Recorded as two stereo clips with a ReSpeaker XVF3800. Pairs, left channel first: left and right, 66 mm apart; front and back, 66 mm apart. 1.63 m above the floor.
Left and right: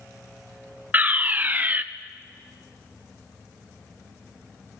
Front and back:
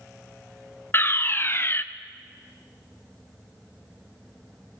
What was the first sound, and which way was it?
A fire alarm, 35° right.